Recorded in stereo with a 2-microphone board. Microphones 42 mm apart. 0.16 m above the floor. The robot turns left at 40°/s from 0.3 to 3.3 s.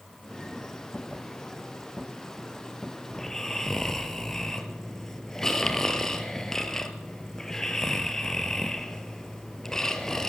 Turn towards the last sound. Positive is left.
turn(degrees=10)  # may be behind; listen again after turning